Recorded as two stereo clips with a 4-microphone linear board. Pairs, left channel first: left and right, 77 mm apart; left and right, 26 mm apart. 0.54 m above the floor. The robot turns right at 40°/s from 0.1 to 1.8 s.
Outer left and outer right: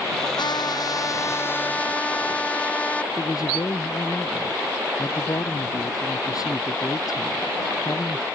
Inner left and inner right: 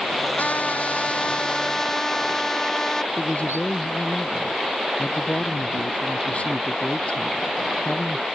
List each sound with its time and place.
0.4 s a trumpet: 105° left; by 3.1 s 165° left
3.2 s a man speaking: 50° left (ahead or behind)